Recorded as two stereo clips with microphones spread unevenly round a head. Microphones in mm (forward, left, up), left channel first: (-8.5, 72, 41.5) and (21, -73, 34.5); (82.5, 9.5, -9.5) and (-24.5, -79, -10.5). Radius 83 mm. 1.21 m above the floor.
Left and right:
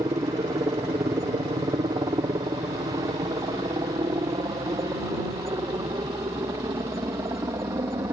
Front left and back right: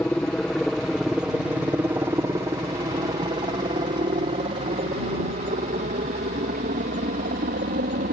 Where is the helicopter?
35° right; by 8.1 s 150° right.